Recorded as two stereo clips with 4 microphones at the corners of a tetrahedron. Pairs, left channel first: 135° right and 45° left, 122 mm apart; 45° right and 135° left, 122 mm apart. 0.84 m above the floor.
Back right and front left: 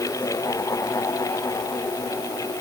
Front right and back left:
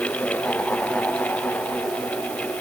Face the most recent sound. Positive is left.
No sound to turn to.